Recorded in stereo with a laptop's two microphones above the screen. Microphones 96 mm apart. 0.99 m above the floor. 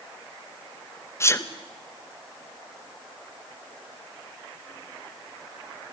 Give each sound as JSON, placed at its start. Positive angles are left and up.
{"t": 1.2, "sound": "a sneeze", "side_deg": 25, "distance_m": 0.8}